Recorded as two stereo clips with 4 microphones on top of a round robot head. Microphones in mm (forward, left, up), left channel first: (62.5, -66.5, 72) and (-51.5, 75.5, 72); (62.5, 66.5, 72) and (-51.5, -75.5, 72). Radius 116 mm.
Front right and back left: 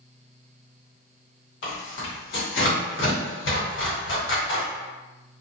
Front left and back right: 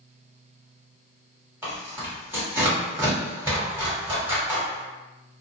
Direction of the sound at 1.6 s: 50° right.